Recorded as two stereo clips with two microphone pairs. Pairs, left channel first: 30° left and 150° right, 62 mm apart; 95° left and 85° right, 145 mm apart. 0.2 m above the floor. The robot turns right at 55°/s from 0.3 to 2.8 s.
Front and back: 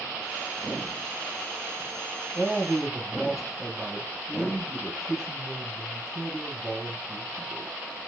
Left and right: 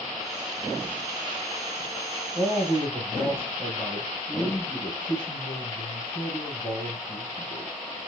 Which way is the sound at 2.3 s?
90° left.